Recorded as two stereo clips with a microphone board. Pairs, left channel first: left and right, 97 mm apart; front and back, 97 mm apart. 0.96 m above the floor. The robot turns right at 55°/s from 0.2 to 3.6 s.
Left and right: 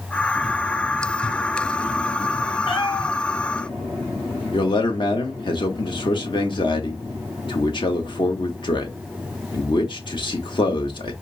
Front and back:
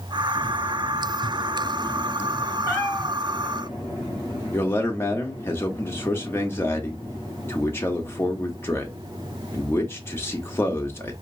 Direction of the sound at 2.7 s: 60° left.